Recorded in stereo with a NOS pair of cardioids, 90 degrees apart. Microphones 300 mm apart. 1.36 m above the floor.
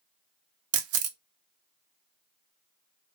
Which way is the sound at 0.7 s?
65° right.